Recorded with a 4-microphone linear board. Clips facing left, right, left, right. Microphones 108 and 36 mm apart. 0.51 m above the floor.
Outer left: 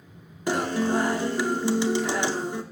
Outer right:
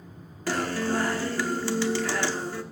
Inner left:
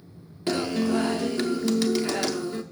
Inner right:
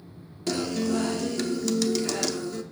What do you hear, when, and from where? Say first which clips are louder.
0.5 s a guitar: outer left 3 dB, inner left 2 dB; 20° left (ahead or behind), 0.6 m